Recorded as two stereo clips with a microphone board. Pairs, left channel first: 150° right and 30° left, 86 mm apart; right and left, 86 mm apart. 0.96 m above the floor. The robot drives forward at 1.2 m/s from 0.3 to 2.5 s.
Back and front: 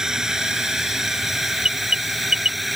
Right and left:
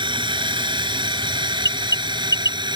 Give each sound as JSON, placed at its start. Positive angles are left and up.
{"t": 0.0, "sound": "a drone", "azimuth_deg": 115}
{"t": 1.6, "sound": "an alarm", "azimuth_deg": -45}